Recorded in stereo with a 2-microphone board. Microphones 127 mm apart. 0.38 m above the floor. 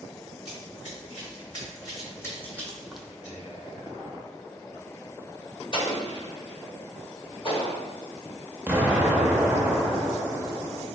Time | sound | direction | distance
0.5 | running footsteps | 45° left (ahead or behind) | 1.8 m
3.2 | whispering | 35° left (ahead or behind) | 1.7 m
5.7 | an explosion | 40° left (ahead or behind) | 1.2 m
8.7 | an explosion | 15° right (ahead or behind) | 0.6 m